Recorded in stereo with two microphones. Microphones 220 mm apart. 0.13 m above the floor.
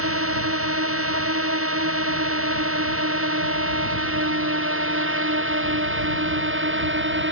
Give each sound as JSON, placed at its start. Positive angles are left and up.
{"t": 0.0, "sound": "a drone", "side_deg": -85}